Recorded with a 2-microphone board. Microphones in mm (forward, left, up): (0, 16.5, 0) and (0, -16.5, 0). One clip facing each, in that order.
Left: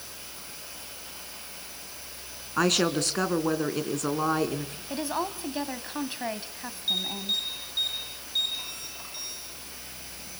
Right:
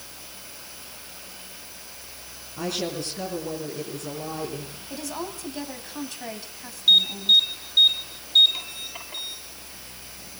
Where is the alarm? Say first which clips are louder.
Right 12 dB; 40° right (ahead or behind), 10 m.